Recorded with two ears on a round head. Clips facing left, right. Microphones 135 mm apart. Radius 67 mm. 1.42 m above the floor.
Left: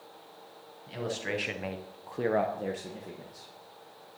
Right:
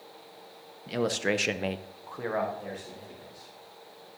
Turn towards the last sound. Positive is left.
turn(degrees=70)  # may be behind; listen again after turning